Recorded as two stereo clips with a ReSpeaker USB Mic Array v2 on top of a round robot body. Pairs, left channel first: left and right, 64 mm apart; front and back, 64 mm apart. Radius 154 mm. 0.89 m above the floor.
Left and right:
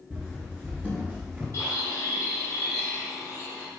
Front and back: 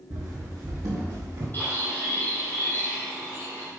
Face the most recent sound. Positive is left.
turn(degrees=50)